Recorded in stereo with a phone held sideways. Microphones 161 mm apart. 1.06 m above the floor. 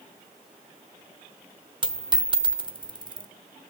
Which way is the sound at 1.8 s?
30° right (ahead or behind).